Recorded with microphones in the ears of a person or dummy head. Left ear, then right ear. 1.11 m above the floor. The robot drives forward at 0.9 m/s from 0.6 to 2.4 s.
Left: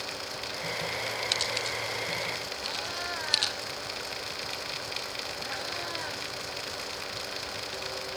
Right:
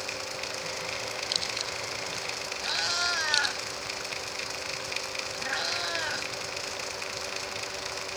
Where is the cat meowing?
50° right (ahead or behind), 1.8 m.